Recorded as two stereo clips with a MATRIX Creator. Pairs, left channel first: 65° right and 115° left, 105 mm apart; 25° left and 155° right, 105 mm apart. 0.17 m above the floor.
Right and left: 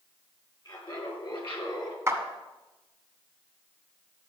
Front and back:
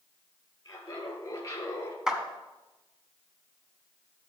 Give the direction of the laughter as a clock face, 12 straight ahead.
1 o'clock.